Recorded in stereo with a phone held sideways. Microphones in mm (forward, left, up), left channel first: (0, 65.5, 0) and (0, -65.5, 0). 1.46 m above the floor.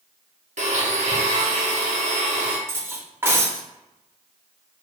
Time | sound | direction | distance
0.6 | a blender | 60° right (ahead or behind) | 0.7 m
2.7 | cutlery clinking | 20° right (ahead or behind) | 0.6 m